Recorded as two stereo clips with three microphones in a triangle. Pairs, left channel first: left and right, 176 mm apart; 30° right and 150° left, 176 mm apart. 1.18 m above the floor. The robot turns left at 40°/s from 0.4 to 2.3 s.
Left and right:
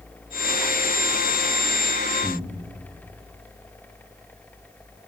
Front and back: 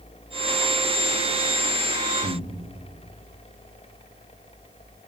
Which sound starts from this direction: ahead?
Breathing, at 2.2 s.